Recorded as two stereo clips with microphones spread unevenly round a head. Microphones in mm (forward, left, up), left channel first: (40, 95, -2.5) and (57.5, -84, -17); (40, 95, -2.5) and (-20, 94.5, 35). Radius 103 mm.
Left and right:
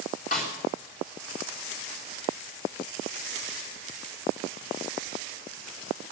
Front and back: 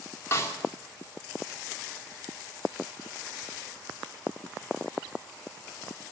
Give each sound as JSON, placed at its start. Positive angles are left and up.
{"t": 0.3, "sound": "a snare drum", "azimuth_deg": 50, "distance_m": 3.5}